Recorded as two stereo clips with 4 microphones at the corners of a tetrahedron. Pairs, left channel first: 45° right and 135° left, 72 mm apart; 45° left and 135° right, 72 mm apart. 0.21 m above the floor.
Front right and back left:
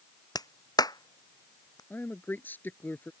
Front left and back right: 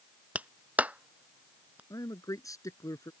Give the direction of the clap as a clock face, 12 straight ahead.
2 o'clock.